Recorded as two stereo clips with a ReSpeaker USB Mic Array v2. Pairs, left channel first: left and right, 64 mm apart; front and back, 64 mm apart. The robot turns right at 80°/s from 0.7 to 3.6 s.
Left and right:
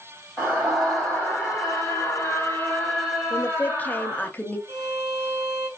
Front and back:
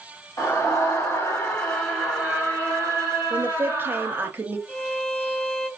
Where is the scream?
5° right, 1.9 m; by 4.3 s 130° right, 1.9 m.